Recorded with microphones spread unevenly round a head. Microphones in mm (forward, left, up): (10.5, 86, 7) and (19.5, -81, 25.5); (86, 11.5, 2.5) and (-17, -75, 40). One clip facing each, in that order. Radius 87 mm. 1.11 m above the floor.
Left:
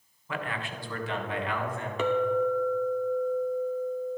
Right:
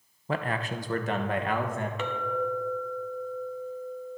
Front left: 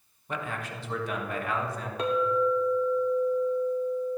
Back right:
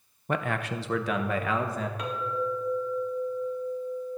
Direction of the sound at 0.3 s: 125° right.